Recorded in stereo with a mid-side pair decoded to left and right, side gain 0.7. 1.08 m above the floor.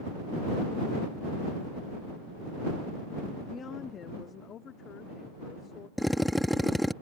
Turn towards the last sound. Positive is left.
turn(degrees=0)